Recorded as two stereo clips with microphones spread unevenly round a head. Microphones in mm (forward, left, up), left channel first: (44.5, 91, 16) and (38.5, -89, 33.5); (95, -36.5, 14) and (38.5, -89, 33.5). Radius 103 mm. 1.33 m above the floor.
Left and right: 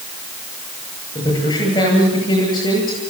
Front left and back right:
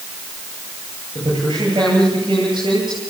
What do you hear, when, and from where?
1.1 s a man speaking: 160° left, 9.5 m